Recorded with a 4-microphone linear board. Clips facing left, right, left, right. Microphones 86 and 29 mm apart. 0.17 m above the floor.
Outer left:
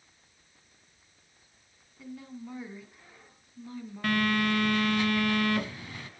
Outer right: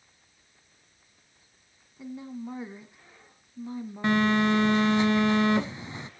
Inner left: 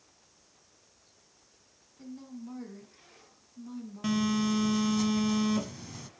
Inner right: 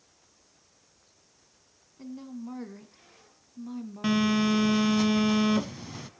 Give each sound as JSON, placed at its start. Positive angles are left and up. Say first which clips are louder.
{"t": 2.0, "sound": "a woman speaking", "louder": "outer right 5 dB, inner right 4 dB", "side_deg": -20, "distance_m": 1.3}
{"t": 4.0, "sound": "a phone buzzing", "louder": "outer right 4 dB, inner right 4 dB", "side_deg": -20, "distance_m": 0.7}